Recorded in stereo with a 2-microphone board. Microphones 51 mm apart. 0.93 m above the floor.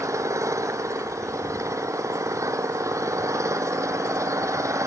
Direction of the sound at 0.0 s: 90° right.